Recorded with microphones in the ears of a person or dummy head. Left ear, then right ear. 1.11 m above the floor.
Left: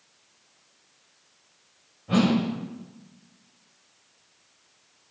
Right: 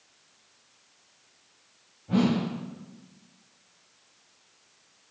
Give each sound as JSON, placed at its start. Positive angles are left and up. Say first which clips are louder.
{"t": 2.1, "sound": "a whoosh", "louder": "left 3 dB", "side_deg": 70, "distance_m": 2.0}